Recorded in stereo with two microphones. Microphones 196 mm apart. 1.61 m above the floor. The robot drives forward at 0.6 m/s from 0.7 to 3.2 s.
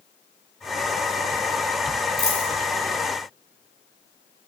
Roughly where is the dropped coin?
Right.